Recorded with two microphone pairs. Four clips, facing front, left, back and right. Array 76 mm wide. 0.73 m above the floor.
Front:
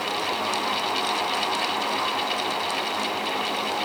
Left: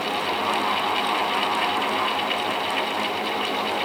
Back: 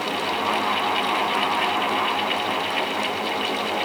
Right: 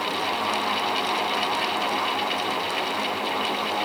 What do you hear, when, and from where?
Only background noise.